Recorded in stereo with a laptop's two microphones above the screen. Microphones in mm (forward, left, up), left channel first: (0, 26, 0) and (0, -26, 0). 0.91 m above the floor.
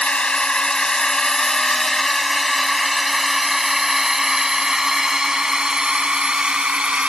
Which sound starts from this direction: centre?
A drone, at 0.0 s.